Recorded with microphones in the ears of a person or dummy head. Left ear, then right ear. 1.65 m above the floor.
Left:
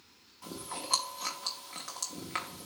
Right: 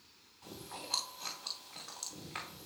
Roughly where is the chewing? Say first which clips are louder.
Left 6 dB; left.